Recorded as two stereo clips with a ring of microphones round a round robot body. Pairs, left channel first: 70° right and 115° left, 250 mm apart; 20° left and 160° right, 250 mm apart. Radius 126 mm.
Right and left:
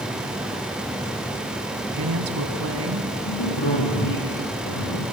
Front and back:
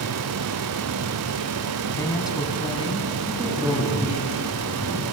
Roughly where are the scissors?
No scissors in this recording.